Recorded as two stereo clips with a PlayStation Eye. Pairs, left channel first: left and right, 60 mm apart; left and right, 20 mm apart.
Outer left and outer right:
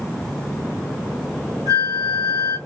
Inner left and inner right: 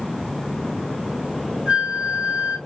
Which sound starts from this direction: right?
A flute, at 1.7 s.